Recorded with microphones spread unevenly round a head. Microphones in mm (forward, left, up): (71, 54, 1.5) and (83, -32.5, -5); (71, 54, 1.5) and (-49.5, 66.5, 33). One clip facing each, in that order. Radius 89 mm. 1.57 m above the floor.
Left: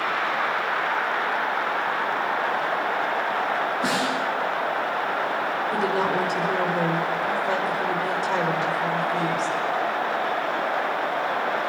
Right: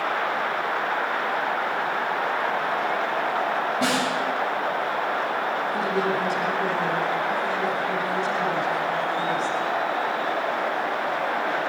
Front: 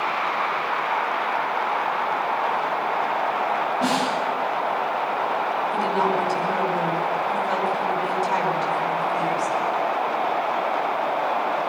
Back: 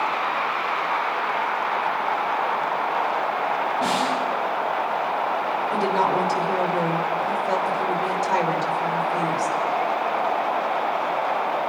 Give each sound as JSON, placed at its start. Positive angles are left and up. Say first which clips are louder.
{"t": 3.8, "sound": "a snare drum", "louder": "right 1 dB, even", "azimuth_deg": -95, "distance_m": 9.0}
{"t": 5.7, "sound": "a woman speaking", "louder": "left 3 dB, back 2 dB", "azimuth_deg": 130, "distance_m": 5.0}